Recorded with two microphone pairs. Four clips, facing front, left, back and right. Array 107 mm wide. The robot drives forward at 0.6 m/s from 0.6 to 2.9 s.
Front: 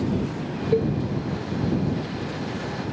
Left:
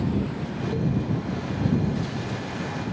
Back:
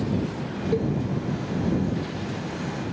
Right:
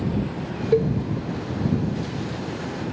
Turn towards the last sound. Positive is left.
turn(degrees=-145)